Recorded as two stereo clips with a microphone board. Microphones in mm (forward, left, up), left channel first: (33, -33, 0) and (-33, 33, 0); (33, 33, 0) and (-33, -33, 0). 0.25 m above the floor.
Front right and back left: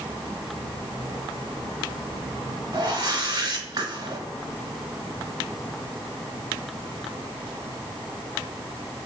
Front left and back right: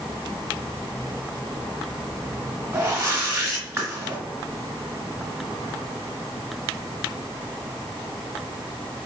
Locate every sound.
2.7 s a whoosh: 170° left, 1.3 m